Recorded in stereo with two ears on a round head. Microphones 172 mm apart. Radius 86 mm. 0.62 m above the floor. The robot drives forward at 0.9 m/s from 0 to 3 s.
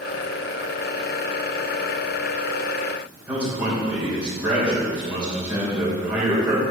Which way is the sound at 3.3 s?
5° right (ahead or behind).